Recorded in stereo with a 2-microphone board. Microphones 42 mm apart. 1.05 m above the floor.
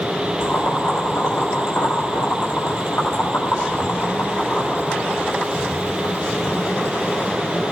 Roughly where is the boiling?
Left.